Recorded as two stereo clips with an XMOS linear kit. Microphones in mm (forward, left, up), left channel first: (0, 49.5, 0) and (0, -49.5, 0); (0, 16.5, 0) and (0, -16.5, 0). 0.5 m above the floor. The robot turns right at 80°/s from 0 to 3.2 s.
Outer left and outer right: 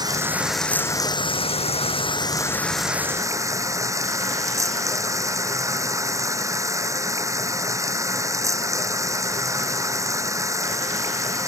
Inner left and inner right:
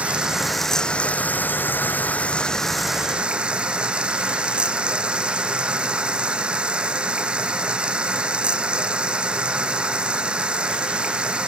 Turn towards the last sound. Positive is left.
turn(degrees=-150)